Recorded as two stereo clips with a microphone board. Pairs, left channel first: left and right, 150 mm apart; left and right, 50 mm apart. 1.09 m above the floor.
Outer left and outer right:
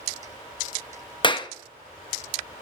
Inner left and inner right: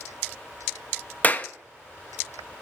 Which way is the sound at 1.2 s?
30° left (ahead or behind).